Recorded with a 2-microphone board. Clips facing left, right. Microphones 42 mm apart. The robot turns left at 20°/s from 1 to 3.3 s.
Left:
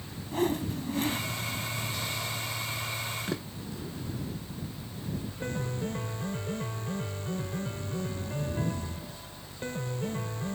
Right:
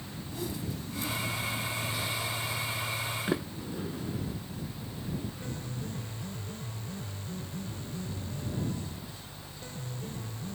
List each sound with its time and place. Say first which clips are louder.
0.3 s a whoosh: left 9 dB; 55° left (ahead or behind); by 1.2 s 50° left (ahead or behind)
3.3 s a sliding door: right 3 dB; 25° right (ahead or behind)
5.4 s a piano: left 5 dB; 55° left (ahead or behind)